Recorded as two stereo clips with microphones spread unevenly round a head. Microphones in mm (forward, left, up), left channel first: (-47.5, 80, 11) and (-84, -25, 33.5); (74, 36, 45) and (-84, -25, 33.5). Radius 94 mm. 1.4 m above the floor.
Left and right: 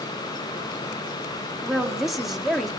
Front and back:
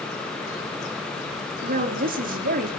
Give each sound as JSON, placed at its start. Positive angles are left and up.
{"t": 1.6, "sound": "a woman speaking", "azimuth_deg": 160, "distance_m": 4.0}